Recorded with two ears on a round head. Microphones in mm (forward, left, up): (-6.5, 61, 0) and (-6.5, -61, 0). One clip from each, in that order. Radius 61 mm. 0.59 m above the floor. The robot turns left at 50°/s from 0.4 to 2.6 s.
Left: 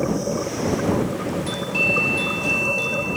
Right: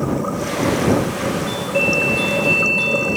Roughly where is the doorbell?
Ahead left.